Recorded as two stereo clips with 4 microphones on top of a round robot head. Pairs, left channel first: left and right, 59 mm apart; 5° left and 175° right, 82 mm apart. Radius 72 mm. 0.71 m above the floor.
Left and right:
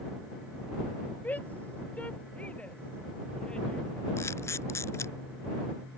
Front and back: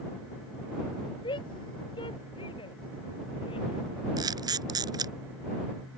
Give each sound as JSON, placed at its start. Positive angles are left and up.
{"t": 1.2, "sound": "a shout", "azimuth_deg": 25}
{"t": 4.2, "sound": "a camera shutter", "azimuth_deg": 145}